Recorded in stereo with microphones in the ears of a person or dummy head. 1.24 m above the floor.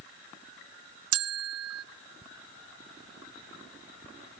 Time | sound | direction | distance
1.1 | a bell | 70° right (ahead or behind) | 0.5 m